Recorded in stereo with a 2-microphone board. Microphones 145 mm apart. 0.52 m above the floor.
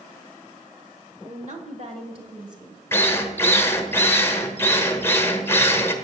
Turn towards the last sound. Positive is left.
turn(degrees=15)  # may be behind; listen again after turning